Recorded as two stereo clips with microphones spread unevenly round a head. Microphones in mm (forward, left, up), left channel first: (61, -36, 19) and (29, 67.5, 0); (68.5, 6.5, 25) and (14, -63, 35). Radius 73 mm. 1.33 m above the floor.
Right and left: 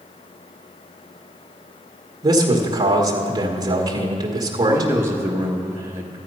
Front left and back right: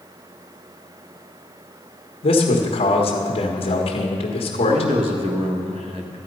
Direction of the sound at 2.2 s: 60° left.